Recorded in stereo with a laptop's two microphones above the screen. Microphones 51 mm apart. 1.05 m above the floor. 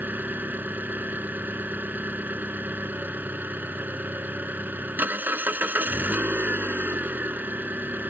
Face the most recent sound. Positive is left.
turn(degrees=-40)  # may be behind; listen again after turning